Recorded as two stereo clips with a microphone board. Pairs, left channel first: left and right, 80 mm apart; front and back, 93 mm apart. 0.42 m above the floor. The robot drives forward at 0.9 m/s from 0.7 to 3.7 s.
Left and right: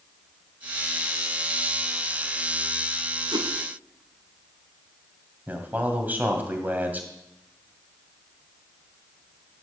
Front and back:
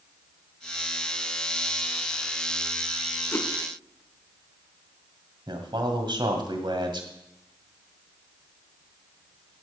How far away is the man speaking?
About 2 m.